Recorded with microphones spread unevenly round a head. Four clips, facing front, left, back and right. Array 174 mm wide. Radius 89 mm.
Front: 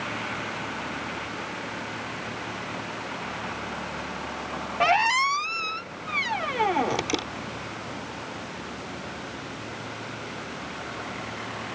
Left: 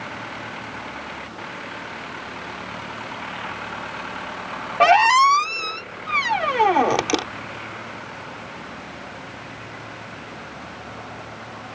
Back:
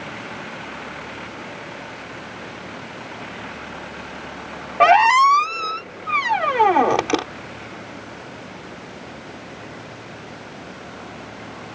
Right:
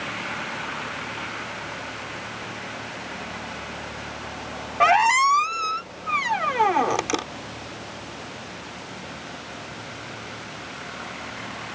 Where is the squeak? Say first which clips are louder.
Left 4 dB, back 10 dB; 160° left.